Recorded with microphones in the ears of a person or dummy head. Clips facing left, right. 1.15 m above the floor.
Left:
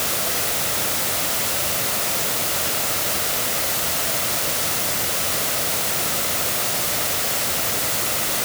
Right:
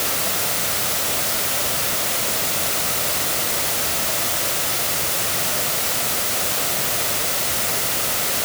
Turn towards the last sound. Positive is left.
No sound to turn to.